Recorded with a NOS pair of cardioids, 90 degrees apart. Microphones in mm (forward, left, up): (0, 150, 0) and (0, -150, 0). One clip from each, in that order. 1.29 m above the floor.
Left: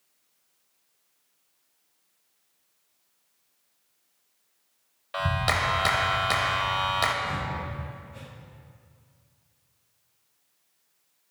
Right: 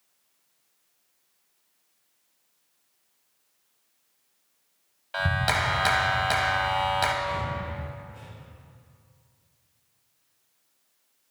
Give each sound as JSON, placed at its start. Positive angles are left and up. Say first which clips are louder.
{"t": 5.1, "sound": "a clap", "louder": "right 1 dB", "azimuth_deg": 5, "distance_m": 0.9}
{"t": 7.2, "sound": "breathing", "louder": "right 1 dB", "azimuth_deg": 65, "distance_m": 1.5}